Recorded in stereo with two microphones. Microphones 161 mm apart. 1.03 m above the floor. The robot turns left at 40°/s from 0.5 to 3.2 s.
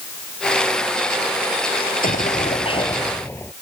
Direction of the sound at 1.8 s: 70° left.